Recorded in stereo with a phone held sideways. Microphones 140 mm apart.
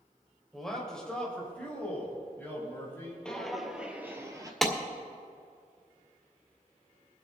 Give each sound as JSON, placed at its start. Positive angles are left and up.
{"t": 0.5, "sound": "a man speaking", "side_deg": 0, "distance_m": 3.0}
{"t": 3.2, "sound": "footsteps", "side_deg": 5, "distance_m": 1.6}
{"t": 4.6, "sound": "a clap", "side_deg": 0, "distance_m": 1.9}